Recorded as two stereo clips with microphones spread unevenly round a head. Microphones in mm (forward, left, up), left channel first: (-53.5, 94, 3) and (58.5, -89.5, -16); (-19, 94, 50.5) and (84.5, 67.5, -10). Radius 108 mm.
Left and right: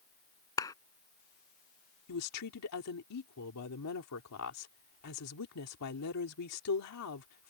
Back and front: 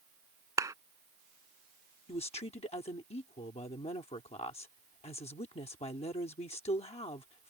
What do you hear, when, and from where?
0.6 s a clap: 45° left
2.1 s a woman speaking: 135° left